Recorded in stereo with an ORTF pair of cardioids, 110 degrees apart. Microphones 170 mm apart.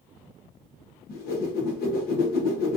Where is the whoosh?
65° left, 1.0 m.